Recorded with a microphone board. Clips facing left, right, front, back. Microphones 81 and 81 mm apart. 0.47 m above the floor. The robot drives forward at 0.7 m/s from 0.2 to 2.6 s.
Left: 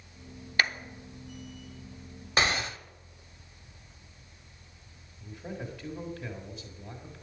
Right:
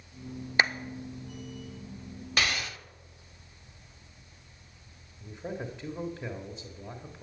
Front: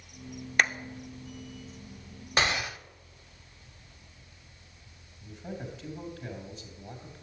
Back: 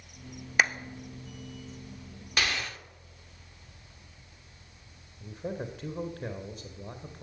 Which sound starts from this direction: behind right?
A man speaking, at 5.2 s.